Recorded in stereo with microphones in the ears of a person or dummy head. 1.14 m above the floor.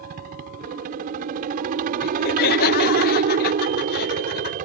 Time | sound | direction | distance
0.0 | a helicopter | 50° right (ahead or behind) | ?
2.0 | laughter | 50° left (ahead or behind) | ?